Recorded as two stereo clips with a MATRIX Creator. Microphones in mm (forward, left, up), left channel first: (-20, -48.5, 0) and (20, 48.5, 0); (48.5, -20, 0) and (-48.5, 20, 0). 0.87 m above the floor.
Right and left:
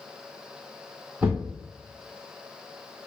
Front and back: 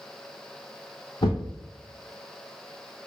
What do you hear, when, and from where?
1.2 s a thud: straight ahead, 0.9 m